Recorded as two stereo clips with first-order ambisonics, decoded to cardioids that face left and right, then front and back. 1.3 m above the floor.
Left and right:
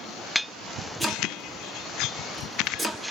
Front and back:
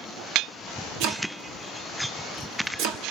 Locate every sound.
1.0 s chopping: 170° right, 1.4 m